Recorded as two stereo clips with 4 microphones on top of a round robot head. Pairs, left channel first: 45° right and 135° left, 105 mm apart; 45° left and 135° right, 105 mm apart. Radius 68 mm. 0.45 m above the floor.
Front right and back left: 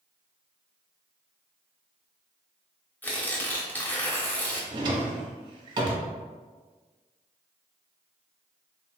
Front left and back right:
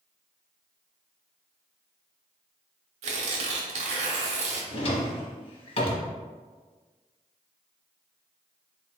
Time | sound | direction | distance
3.0 | tearing paper | 120° right | 0.8 m
4.7 | a drawer | 85° left | 0.7 m